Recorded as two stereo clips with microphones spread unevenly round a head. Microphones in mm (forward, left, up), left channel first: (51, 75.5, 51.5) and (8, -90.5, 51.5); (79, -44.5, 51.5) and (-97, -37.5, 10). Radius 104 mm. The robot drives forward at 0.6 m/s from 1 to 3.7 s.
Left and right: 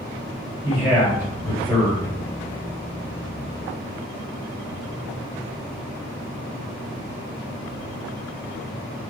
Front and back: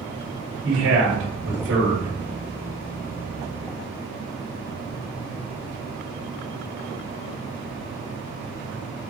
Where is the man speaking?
175° left, 1.7 m.